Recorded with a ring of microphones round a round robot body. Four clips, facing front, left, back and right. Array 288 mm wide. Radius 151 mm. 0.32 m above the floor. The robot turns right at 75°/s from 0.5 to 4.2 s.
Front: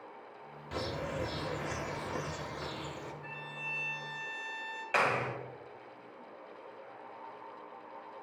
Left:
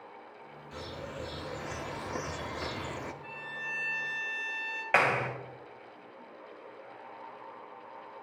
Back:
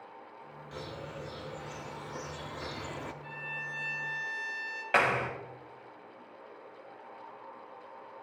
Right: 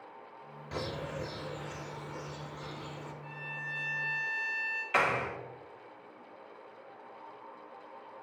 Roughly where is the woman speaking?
No woman speaking in this recording.